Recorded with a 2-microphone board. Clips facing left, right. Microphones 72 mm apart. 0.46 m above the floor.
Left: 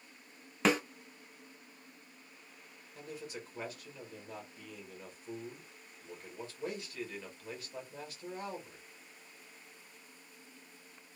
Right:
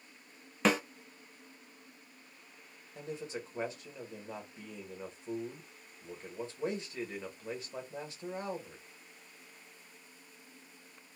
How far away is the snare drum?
About 0.9 m.